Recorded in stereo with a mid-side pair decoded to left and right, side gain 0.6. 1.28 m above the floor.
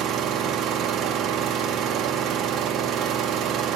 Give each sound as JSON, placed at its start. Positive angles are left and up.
{"t": 0.0, "sound": "an engine running", "azimuth_deg": -60, "distance_m": 0.7}